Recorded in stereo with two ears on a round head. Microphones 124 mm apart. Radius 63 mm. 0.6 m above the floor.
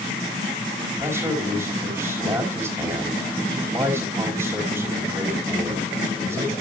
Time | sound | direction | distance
1.0 | a man speaking | 20° right (ahead or behind) | 4 m